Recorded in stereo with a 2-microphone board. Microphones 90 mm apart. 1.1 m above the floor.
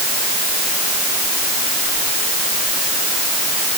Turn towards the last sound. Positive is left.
No sound to turn to.